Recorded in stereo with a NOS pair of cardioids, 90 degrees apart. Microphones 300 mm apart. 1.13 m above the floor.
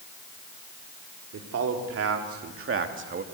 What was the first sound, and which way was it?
A man speaking, 55° right.